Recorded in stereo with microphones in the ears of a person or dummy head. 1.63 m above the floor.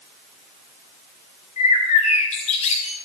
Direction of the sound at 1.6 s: 35° left (ahead or behind).